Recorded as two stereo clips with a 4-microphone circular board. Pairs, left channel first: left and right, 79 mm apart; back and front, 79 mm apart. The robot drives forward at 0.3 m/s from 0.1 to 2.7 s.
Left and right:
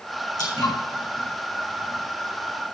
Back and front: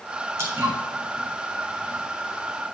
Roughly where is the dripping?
Ahead left.